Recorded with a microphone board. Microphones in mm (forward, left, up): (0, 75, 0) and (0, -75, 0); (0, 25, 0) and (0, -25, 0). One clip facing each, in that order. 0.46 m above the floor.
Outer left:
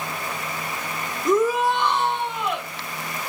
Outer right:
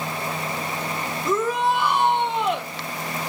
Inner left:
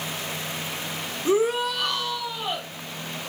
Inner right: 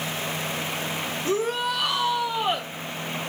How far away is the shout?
About 1.2 m.